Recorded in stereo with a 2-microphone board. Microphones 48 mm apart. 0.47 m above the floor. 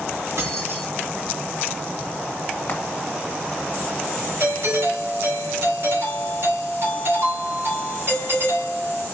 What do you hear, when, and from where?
0.4 s keys jangling: 60° right (ahead or behind), 2 m
2.7 s frying: 45° left (ahead or behind), 1.5 m
4.4 s a doorbell: 55° right (ahead or behind), 3 m